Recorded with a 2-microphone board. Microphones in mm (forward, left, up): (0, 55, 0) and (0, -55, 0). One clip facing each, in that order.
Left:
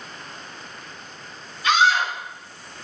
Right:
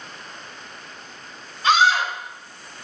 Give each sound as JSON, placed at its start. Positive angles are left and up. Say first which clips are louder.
{"t": 1.6, "sound": "a scream", "louder": "right 1 dB", "side_deg": -35, "distance_m": 0.9}